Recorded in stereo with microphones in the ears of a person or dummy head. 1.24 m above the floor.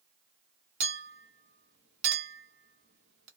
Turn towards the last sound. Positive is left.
turn(degrees=-60)  # may be behind; listen again after turning